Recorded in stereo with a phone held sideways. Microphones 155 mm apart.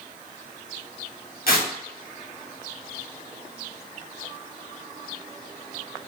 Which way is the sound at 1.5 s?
75° left (ahead or behind).